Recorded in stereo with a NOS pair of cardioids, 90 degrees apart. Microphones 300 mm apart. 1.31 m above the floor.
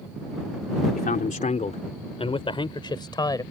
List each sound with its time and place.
0.9 s a man speaking: 30° left; by 3.4 s 15° left